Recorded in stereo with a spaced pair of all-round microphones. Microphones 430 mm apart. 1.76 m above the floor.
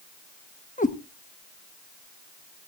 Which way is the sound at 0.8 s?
20° left (ahead or behind).